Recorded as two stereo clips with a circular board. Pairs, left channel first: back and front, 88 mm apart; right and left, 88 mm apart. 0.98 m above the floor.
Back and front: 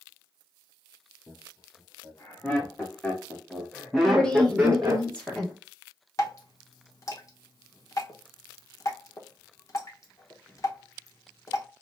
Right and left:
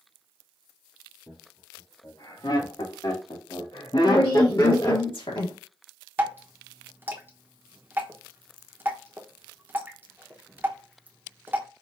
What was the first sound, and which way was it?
Laughter, 120° right.